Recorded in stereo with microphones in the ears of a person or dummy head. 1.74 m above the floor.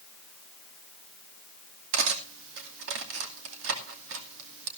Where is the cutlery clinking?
70° right (ahead or behind), 2.5 m.